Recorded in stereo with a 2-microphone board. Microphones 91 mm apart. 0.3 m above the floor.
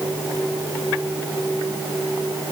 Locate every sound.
Only background noise.